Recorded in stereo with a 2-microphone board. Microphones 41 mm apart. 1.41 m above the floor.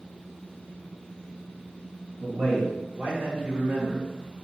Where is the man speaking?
80° right, 1.6 m; by 4.0 s 65° right (ahead or behind), 0.8 m.